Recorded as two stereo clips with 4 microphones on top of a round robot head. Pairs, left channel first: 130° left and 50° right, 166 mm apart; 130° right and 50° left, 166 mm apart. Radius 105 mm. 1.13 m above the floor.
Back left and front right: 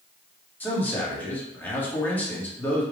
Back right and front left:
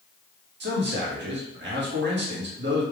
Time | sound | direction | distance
0.6 | a man speaking | 50° left | 1.4 m